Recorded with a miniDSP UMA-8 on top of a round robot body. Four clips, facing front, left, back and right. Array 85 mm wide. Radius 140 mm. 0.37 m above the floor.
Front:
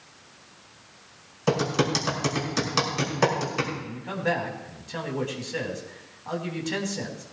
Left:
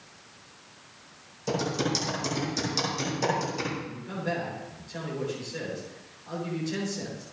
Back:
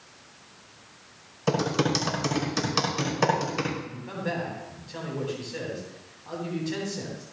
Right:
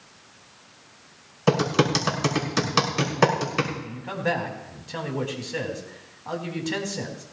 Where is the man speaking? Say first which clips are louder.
Right 5 dB, front 5 dB; 65° right, 4 m.